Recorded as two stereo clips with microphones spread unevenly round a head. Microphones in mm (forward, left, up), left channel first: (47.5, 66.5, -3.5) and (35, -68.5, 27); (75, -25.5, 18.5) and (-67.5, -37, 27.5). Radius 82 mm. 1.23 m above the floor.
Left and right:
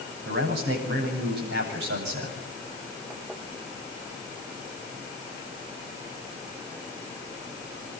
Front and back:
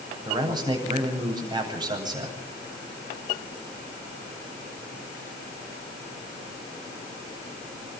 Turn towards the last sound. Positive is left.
turn(degrees=-115)